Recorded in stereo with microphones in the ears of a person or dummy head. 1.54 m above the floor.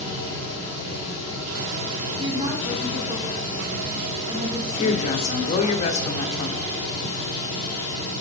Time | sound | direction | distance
0.0 | a fan | 55° right (ahead or behind) | 4.5 m
2.2 | a woman speaking | 30° right (ahead or behind) | 2.5 m
4.8 | a woman speaking | 40° left (ahead or behind) | 0.9 m